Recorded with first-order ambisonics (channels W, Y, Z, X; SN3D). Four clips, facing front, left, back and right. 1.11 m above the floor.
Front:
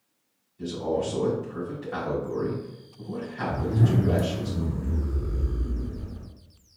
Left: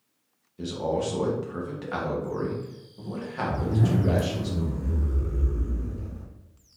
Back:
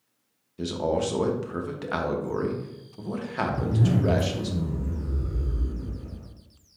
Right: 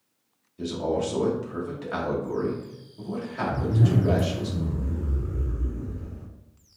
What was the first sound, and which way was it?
A man speaking, 175° left.